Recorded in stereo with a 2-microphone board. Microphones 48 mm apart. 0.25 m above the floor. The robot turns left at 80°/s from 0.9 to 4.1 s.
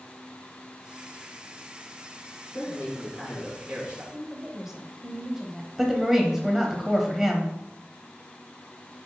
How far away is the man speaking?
About 3 m.